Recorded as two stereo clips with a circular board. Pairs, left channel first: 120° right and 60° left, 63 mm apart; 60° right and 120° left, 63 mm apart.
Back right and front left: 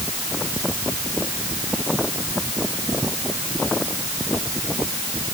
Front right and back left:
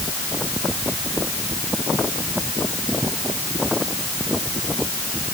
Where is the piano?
I don't hear a piano.